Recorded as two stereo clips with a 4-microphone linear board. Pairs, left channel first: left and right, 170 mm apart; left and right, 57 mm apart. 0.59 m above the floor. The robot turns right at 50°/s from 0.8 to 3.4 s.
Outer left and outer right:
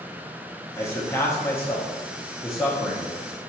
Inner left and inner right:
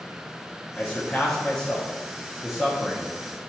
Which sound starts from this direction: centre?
A man speaking, at 0.8 s.